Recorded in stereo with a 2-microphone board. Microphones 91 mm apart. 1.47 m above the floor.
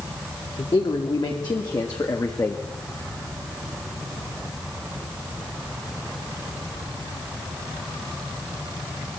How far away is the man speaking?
About 3 m.